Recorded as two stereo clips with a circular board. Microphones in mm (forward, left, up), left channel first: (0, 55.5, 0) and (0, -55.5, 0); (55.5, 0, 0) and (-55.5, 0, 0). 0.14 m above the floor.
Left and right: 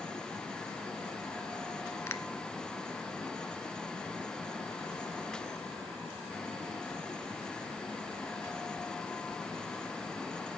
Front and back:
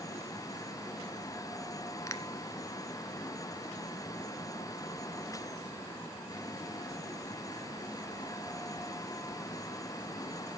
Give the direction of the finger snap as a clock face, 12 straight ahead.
11 o'clock.